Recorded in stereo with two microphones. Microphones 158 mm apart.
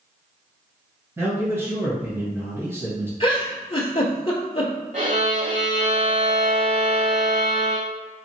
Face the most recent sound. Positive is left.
turn(degrees=-55)  # may be behind; listen again after turning